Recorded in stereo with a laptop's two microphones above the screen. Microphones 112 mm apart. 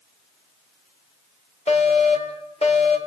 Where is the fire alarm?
75° left (ahead or behind), 5.5 m.